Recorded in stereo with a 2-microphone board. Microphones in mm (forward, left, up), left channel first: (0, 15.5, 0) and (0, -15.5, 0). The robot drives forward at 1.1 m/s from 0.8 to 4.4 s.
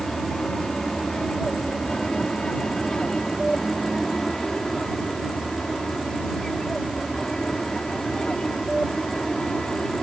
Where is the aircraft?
20° left (ahead or behind).